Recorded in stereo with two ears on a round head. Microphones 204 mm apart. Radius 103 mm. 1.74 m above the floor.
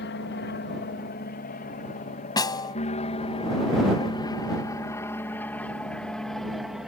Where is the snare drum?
20° left (ahead or behind).